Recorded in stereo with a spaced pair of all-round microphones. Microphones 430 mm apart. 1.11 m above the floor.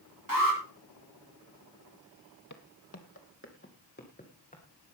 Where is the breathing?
I don't hear breathing.